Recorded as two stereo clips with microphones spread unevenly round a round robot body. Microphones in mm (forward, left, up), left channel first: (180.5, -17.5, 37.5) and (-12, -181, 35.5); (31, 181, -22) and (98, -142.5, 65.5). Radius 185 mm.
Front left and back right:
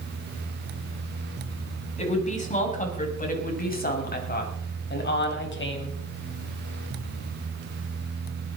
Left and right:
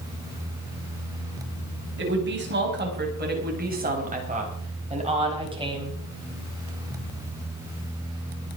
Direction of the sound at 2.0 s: 20° right.